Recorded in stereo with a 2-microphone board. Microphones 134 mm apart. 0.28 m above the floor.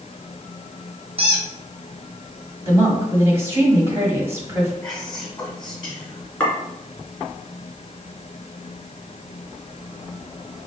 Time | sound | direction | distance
1.2 | a squeak | 45° right (ahead or behind) | 1.6 m
2.6 | a woman speaking | 20° right (ahead or behind) | 2.0 m
4.8 | whispering | 5° left (ahead or behind) | 2.5 m
6.4 | a clink | 15° left (ahead or behind) | 2 m